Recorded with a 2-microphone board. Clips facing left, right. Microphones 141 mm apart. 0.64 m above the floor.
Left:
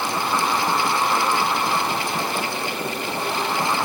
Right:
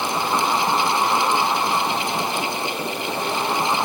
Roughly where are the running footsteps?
I don't hear running footsteps.